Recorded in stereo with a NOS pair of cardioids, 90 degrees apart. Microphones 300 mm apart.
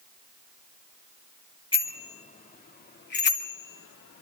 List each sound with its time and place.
1.7 s a bicycle bell: 15° left, 3 m; by 4.2 s 50° left, 2.5 m